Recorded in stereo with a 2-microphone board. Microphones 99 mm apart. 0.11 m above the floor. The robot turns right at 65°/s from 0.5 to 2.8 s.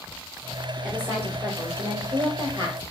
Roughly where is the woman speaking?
Behind.